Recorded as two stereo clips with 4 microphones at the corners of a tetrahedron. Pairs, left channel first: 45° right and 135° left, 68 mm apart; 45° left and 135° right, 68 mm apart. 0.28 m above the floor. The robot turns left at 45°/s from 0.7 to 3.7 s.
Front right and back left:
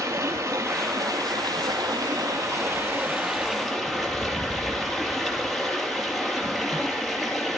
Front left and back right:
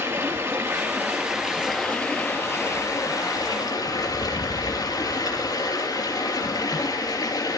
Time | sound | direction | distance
0.0 | running water | straight behind | 3.5 m